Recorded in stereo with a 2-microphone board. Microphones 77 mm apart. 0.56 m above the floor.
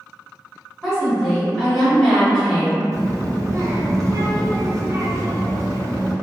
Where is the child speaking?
40° right (ahead or behind), 0.6 m.